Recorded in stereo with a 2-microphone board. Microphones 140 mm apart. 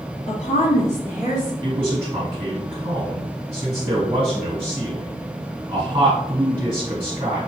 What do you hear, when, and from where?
0.3 s a woman speaking: 50° left (ahead or behind), 1.8 m; by 1.5 s 60° left (ahead or behind), 2.5 m
1.6 s a man speaking: 30° right (ahead or behind), 1.6 m